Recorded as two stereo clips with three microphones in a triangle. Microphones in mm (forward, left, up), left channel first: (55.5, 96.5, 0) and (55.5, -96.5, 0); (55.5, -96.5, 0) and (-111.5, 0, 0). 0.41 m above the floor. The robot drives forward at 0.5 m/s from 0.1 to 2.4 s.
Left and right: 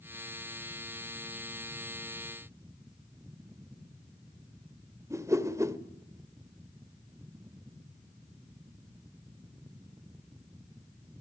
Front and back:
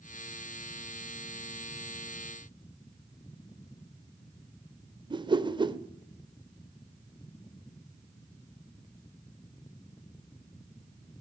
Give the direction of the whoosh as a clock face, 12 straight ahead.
5 o'clock.